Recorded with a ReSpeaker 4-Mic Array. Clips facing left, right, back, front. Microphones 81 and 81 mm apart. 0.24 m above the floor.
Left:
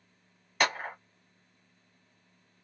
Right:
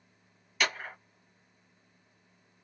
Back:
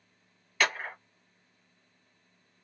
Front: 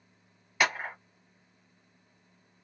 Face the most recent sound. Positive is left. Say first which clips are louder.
# left 3 dB, front 1 dB
turn(degrees=70)